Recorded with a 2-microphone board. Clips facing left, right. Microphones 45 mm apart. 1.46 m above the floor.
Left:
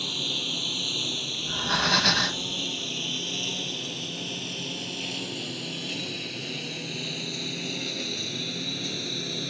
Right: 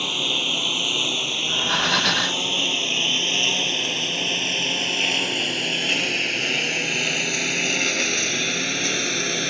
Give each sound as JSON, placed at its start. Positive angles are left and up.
{"t": 0.0, "sound": "a lawn mower", "side_deg": -55}
{"t": 1.4, "sound": "breathing", "side_deg": -10}